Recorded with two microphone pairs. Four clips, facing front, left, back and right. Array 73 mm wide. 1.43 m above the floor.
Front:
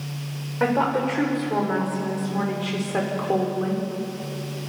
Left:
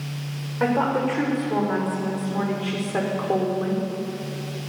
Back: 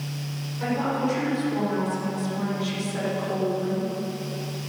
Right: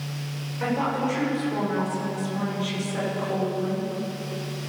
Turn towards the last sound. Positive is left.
turn(degrees=50)